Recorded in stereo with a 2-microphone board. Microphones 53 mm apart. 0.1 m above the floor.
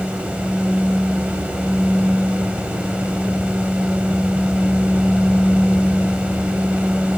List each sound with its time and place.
Only background noise.